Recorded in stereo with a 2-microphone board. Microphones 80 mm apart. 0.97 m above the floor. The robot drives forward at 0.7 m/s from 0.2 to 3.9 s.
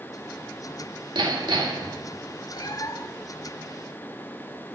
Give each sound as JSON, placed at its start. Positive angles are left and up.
{"t": 1.1, "sound": "hammering", "side_deg": -75, "distance_m": 1.8}
{"t": 2.5, "sound": "a cat meowing", "side_deg": 60, "distance_m": 0.8}